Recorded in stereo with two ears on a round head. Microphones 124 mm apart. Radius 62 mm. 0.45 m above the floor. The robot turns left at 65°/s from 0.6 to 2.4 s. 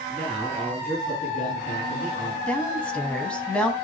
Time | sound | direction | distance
0.1 | a man speaking | straight behind | 6 m
2.5 | a woman speaking | 10° left (ahead or behind) | 2.5 m